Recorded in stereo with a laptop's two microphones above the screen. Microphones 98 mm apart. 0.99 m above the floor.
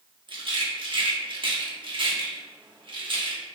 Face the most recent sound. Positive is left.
turn(degrees=-60)  # may be behind; listen again after turning